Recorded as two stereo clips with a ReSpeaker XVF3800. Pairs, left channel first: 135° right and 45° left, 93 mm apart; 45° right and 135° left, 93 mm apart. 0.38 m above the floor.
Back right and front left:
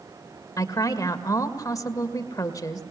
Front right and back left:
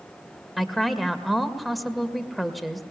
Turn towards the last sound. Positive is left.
turn(degrees=-135)